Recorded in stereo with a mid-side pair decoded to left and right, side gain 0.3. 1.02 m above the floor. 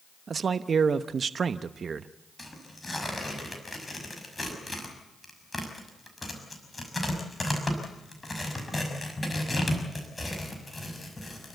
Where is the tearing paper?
25° left, 6 m.